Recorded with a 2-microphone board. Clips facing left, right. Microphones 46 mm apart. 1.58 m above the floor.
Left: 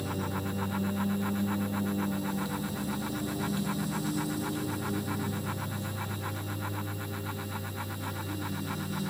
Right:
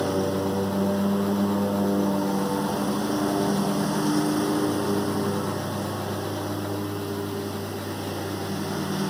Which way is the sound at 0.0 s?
80° right.